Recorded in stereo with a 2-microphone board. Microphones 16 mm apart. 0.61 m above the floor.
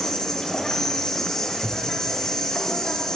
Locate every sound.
0.0 s an insect: 50° left (ahead or behind), 1.1 m
1.6 s a thud: 45° left (ahead or behind), 1.6 m